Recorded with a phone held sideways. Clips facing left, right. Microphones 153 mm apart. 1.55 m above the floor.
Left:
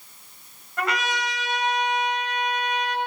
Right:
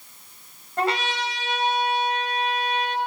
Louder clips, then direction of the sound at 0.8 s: Right 2 dB; 30° right (ahead or behind).